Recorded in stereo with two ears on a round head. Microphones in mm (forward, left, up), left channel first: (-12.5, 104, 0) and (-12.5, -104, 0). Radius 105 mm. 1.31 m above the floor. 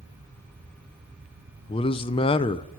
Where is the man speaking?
25° left (ahead or behind), 0.6 m.